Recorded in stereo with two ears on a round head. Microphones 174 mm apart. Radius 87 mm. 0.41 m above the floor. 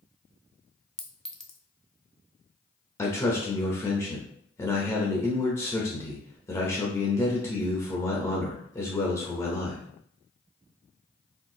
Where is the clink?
5° left (ahead or behind), 0.6 m.